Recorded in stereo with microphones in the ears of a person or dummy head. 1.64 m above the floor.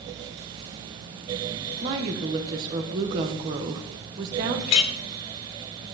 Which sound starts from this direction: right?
A woman speaking, at 1.8 s.